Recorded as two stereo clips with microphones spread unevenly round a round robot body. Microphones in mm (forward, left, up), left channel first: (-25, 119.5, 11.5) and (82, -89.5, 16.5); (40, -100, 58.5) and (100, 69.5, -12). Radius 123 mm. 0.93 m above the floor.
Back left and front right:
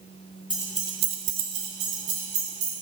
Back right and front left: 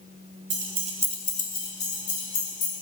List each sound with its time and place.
0.5 s keys jangling: 45° left, 0.9 m; by 2.7 s 95° right, 2.5 m